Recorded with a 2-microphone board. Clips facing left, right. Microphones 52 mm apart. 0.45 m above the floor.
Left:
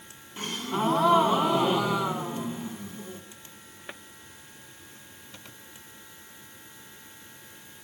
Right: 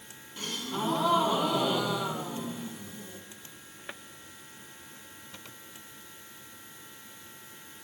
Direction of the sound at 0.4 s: 30° left (ahead or behind).